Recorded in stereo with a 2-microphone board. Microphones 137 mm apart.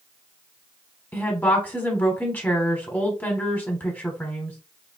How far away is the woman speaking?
About 1.1 m.